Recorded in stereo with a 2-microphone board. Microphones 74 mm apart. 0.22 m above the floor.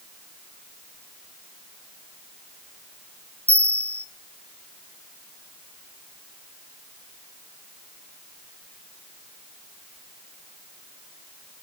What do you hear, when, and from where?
3.5 s a bell: 20° left (ahead or behind), 0.5 m